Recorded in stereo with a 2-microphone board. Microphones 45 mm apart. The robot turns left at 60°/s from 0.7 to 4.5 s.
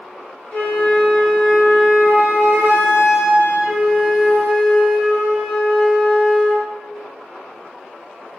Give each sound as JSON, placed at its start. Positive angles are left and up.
{"t": 0.5, "sound": "a flute", "azimuth_deg": 40, "distance_m": 1.8}